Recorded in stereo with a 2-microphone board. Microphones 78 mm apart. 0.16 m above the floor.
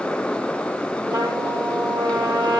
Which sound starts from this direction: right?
A trumpet, at 1.1 s.